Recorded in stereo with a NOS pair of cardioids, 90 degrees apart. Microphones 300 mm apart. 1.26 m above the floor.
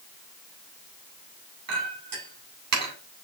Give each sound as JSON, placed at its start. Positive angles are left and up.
{"t": 1.7, "sound": "a clink", "azimuth_deg": -60, "distance_m": 3.0}